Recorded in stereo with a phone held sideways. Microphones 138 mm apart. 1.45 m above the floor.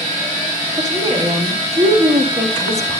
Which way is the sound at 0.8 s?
25° right (ahead or behind).